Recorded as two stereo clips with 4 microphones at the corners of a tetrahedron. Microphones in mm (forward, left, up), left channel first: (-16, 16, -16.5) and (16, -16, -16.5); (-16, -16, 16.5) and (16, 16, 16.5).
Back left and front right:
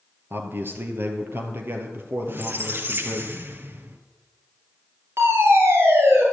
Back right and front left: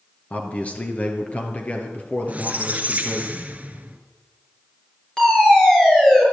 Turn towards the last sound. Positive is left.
turn(degrees=-60)